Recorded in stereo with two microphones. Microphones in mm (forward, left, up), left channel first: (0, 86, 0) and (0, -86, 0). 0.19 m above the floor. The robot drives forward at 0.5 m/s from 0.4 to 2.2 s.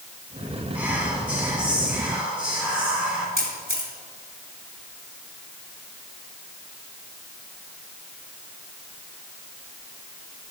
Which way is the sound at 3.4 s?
55° right (ahead or behind).